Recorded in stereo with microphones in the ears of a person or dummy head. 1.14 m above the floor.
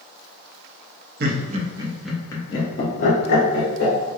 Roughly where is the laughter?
Right.